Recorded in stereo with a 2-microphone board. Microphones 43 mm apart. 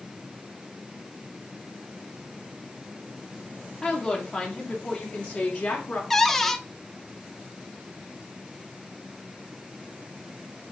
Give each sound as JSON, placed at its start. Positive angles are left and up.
{"t": 3.8, "sound": "a woman speaking", "side_deg": 15, "distance_m": 2.0}
{"t": 6.1, "sound": "a cupboard door", "side_deg": 5, "distance_m": 0.7}